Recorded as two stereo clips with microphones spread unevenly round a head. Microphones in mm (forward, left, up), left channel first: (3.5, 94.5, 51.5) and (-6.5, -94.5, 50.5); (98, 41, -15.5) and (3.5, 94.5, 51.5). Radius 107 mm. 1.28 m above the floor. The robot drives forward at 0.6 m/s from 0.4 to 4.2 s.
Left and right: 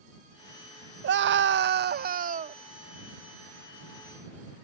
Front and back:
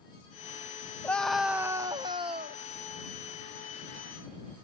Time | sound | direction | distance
1.0 | a scream | 85° right | ?